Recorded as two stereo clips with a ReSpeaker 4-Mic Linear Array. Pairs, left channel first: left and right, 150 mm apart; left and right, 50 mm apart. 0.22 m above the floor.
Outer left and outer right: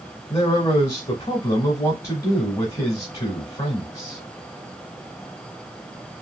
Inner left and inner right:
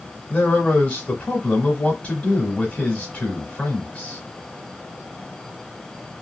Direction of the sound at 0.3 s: 25° left (ahead or behind).